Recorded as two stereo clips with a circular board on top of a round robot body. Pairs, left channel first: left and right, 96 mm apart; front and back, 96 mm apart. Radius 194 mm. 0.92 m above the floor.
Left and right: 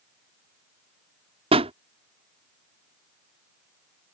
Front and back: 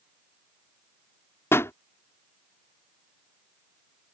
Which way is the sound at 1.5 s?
65° right.